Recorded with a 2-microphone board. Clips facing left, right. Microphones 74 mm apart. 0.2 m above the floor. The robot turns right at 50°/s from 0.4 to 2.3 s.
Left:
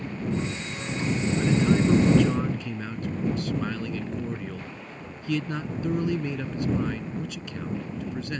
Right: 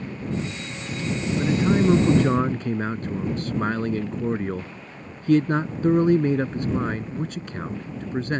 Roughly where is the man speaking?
Behind.